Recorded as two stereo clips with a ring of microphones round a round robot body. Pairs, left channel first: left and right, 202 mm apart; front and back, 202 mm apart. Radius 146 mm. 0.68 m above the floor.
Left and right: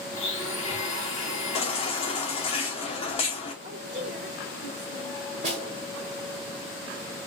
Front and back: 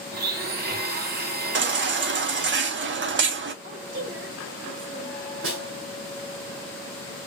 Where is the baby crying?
155° left, 1.0 m.